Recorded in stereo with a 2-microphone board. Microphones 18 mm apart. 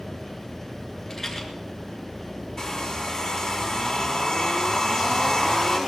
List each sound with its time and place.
1.1 s a rattle: 20° left (ahead or behind), 4 m
2.6 s a hair dryer: 35° left (ahead or behind), 4 m